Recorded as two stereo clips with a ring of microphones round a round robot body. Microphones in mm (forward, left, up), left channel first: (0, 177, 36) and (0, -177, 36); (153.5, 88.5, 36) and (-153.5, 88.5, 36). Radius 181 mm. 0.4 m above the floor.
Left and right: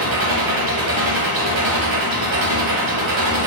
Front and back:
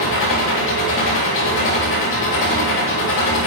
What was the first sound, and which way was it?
An engine running, 60° right.